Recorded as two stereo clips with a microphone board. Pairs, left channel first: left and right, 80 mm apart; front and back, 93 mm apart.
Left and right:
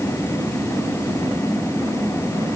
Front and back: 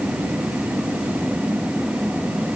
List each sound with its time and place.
Only background noise.